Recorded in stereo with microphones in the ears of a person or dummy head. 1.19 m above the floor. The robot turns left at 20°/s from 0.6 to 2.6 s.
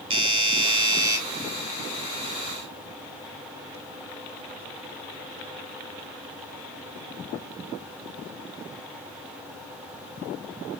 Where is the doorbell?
30° right (ahead or behind), 1.2 m; by 1.2 s 20° right (ahead or behind), 1.2 m.